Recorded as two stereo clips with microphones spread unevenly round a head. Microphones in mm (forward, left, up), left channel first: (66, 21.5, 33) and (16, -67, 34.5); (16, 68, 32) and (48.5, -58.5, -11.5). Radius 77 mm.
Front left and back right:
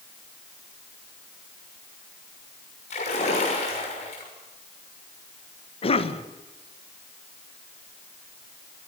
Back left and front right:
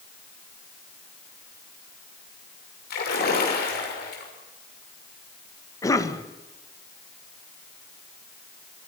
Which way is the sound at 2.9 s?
95° left.